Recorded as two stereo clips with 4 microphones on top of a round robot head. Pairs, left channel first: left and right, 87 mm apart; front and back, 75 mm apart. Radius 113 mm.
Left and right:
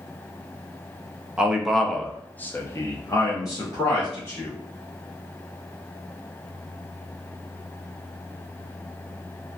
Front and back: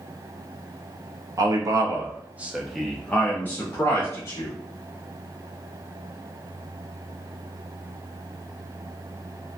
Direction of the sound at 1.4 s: 170° right.